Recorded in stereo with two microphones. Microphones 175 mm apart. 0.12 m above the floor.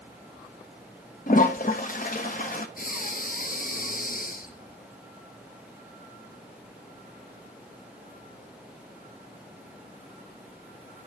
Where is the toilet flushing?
50° left (ahead or behind), 1.3 m.